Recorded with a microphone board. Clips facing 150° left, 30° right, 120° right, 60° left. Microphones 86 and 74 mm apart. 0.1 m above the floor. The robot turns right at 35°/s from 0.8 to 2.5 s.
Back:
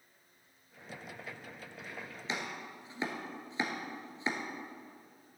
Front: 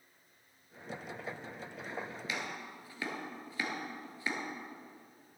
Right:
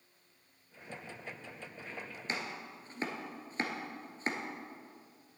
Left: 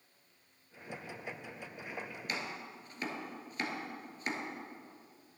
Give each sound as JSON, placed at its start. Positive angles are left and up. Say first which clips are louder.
{"t": 2.3, "sound": "chopping", "louder": "back 4 dB, right 2 dB", "azimuth_deg": -165, "distance_m": 1.4}